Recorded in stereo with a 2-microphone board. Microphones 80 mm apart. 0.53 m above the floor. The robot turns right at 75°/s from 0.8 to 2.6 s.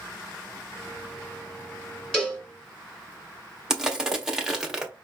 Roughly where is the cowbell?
Centre.